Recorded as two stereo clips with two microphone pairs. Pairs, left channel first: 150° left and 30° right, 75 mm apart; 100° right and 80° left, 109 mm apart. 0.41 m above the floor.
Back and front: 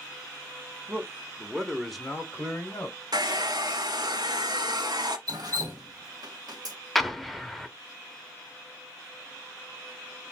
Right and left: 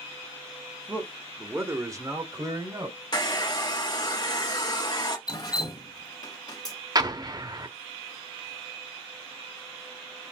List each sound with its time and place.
0.9 s a man speaking: 10° left, 1.2 m; by 3.0 s 105° left, 1.3 m
3.1 s a hair dryer: 50° right, 1.0 m
5.3 s dripping: 50° right, 1.2 m
7.0 s an explosion: 60° left, 0.7 m